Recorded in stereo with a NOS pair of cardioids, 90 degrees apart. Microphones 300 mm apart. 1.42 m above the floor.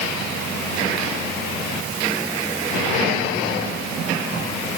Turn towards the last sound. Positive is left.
No sound to turn to.